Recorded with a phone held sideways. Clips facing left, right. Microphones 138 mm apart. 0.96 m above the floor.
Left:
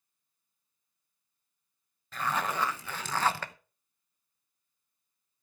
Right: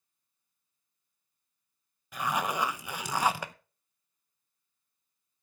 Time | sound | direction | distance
2.1 | a zipper | 10° right (ahead or behind) | 0.7 m